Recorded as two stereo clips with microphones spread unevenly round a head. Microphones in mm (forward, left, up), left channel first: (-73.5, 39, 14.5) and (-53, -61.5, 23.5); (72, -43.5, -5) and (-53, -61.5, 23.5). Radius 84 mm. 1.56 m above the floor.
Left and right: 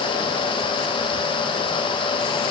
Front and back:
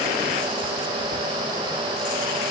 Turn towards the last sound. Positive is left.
No sound to turn to.